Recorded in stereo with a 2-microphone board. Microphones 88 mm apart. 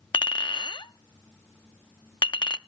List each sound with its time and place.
0.1 s a clink: 65° left (ahead or behind), 0.6 m